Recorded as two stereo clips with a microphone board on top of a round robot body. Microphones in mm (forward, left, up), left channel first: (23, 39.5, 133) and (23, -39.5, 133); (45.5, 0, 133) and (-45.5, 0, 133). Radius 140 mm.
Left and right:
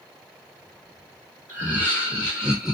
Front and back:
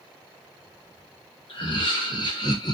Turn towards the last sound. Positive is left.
turn(degrees=-10)